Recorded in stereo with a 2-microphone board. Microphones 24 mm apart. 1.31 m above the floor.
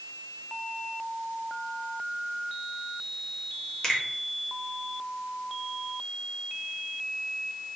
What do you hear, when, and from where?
3.8 s a finger snap: 30° left (ahead or behind), 1.2 m